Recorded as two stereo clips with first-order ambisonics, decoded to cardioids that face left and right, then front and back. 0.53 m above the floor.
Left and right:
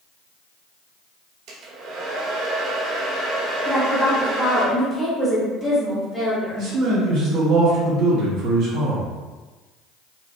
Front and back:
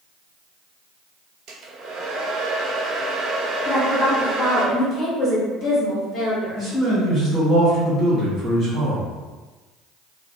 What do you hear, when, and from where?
1.5 s a hair dryer: 130° right, 0.7 m
3.6 s a woman speaking: 20° left, 1.3 m
6.5 s a man speaking: 80° right, 1.8 m